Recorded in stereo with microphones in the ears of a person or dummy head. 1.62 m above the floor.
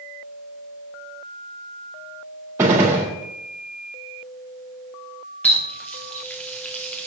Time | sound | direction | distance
2.6 | a gunshot | 5° right (ahead or behind) | 0.9 m
5.4 | a running tap | 10° left (ahead or behind) | 0.8 m